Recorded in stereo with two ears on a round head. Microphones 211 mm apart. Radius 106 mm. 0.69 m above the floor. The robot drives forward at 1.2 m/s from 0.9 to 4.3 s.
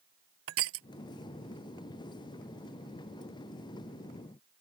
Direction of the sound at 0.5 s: 60° right (ahead or behind).